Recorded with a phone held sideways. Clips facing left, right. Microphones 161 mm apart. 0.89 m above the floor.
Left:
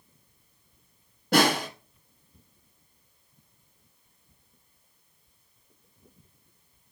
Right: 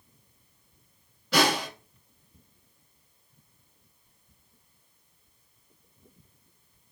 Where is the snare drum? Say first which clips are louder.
Left 2 dB; 50° left (ahead or behind), 1.5 m.